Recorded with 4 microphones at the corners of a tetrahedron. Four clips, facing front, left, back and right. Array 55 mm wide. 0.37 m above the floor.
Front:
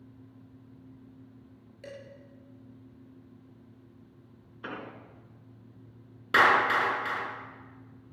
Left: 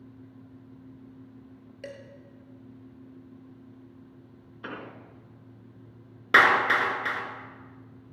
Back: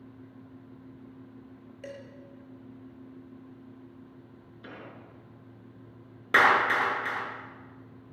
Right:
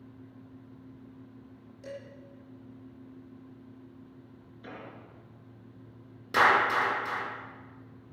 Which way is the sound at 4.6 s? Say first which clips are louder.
Left 5 dB, front 5 dB; 50° left.